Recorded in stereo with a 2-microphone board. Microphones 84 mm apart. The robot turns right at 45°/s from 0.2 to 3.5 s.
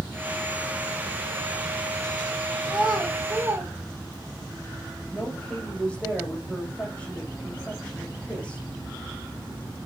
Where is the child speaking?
10° left (ahead or behind), 4.5 m; by 4.5 s 25° right (ahead or behind), 4.5 m.